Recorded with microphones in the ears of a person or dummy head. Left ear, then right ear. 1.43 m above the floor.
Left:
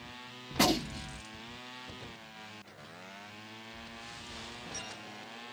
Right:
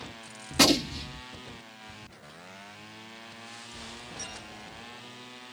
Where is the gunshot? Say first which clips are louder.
Right 6 dB; 25° right (ahead or behind), 0.8 m.